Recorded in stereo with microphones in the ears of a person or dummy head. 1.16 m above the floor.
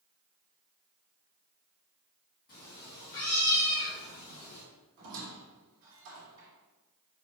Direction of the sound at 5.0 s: 55° right (ahead or behind).